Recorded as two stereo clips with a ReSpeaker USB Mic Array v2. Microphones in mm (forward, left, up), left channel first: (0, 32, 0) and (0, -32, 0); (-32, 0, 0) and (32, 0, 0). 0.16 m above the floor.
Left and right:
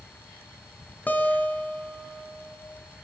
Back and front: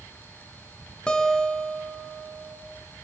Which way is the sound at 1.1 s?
115° left.